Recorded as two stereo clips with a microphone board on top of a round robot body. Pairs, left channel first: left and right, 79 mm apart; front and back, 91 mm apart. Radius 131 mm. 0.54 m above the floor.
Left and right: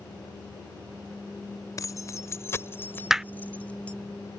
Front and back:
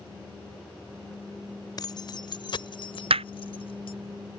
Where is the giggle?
No giggle in this recording.